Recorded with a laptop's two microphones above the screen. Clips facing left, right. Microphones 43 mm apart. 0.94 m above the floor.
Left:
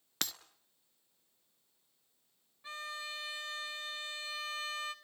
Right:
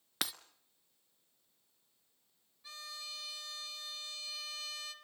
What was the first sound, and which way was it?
Breaking glass, 10° right (ahead or behind).